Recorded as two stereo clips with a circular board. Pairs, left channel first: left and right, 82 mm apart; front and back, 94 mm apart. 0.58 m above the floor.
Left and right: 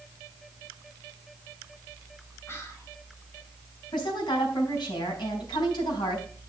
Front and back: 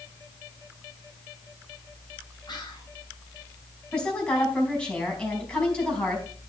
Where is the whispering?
35° left, 3.5 m.